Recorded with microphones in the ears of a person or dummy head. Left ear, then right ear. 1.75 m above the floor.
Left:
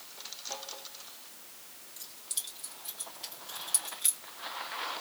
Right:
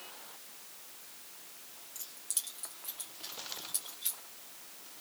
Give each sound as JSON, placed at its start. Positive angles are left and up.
{"t": 1.9, "sound": "keys jangling", "side_deg": -45, "distance_m": 1.3}